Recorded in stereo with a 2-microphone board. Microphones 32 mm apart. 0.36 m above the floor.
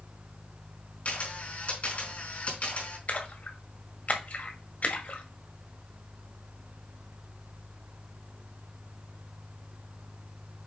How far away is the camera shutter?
About 3.5 m.